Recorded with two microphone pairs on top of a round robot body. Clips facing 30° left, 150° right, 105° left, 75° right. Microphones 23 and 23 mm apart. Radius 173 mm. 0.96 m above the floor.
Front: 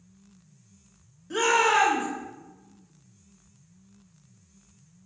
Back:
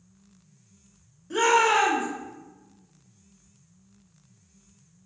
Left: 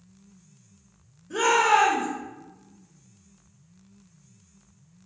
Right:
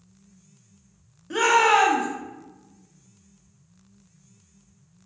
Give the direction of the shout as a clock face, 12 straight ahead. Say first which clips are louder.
Back 1 dB, right 2 dB; 2 o'clock.